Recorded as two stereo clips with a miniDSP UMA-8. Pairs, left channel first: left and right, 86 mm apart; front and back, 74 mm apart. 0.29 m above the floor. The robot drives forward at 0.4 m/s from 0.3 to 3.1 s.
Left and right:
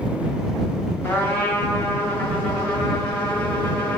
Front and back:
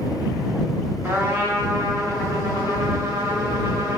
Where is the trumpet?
140° left, 1.1 m; by 4.0 s 160° left, 1.7 m.